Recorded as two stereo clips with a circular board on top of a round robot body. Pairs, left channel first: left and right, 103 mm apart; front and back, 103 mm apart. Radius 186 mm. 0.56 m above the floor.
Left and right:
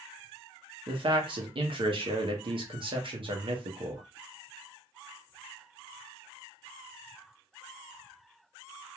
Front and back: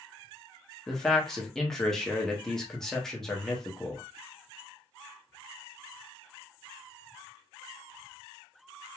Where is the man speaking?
85° right, 0.8 m.